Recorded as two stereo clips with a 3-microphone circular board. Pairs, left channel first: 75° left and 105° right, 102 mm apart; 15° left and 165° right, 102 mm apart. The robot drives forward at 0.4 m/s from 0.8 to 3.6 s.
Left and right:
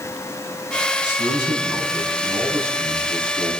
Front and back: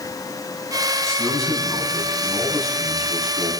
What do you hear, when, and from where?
1.0 s a man speaking: 70° right, 6 m; by 3.5 s 80° right, 6 m